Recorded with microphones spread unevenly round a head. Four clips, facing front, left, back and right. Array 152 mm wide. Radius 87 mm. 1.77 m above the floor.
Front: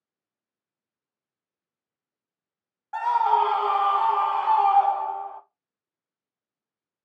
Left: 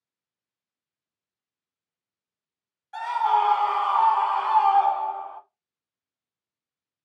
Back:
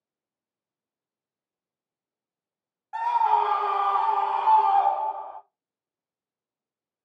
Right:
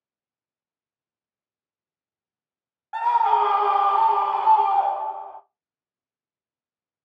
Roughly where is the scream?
Ahead right.